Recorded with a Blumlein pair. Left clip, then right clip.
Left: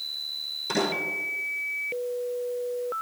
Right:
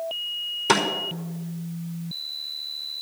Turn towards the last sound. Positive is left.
turn(degrees=-55)